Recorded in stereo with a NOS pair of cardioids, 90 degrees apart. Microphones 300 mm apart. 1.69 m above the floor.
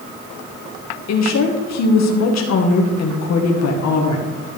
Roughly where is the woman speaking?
Ahead left.